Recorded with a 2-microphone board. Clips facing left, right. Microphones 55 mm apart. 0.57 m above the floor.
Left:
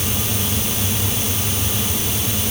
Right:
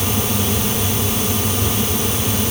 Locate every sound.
Only background noise.